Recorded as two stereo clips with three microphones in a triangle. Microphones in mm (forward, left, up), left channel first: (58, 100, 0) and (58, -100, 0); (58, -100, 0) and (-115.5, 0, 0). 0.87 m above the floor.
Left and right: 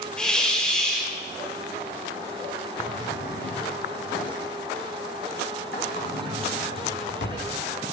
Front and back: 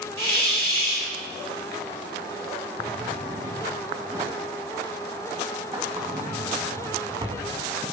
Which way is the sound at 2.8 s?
90° left.